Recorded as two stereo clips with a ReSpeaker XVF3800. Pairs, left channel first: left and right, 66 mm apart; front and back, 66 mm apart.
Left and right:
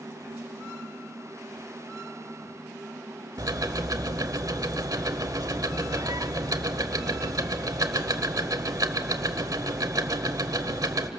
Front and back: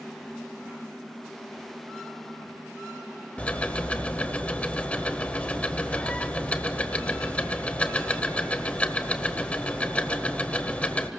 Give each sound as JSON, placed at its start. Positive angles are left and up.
{"t": 3.4, "sound": "ticking", "azimuth_deg": -70, "distance_m": 1.0}